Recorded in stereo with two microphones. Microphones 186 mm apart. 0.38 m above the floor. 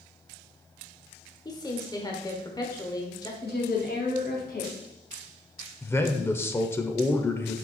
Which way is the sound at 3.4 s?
60° left (ahead or behind).